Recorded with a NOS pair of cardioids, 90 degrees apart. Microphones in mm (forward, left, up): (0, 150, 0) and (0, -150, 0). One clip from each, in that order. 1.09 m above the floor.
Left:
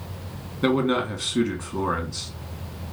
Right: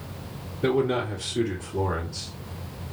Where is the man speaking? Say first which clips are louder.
Left 1 dB; 65° left, 1.6 m.